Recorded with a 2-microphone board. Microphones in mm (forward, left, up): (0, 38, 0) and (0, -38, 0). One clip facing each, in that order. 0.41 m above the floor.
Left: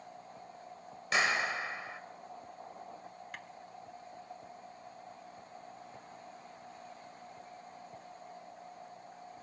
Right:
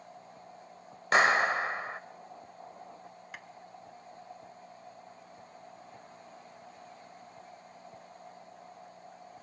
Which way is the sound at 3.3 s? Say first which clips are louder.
Right 2 dB; 5° right (ahead or behind).